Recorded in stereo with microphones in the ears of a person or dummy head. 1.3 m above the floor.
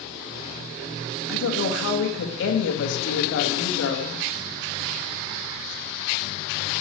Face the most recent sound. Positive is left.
turn(degrees=80)